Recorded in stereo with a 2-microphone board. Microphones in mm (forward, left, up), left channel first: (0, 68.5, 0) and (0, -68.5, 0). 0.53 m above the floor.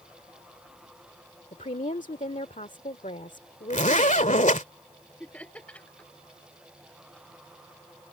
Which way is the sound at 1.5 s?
60° left (ahead or behind).